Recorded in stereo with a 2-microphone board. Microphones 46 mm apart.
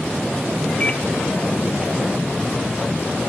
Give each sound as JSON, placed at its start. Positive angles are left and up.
{"t": 0.8, "sound": "a microwave", "side_deg": 20, "distance_m": 0.9}